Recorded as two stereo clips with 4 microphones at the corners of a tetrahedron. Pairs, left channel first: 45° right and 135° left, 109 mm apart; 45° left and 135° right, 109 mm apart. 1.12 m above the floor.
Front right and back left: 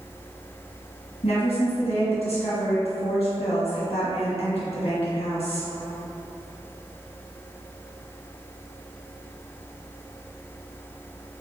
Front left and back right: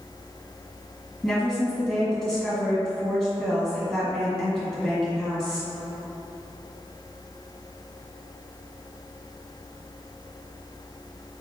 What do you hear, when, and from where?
1.2 s a woman speaking: 40° right, 1.5 m